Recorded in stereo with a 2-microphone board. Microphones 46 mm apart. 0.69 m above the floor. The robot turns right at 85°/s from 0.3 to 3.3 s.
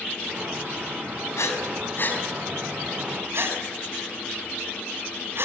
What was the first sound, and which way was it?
Breathing, 75° left (ahead or behind).